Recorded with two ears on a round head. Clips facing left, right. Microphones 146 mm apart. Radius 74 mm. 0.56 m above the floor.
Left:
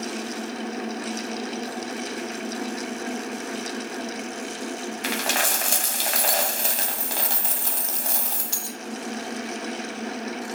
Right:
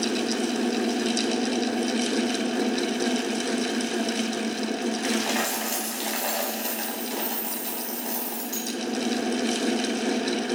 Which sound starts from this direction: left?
A dropped coin, at 5.0 s.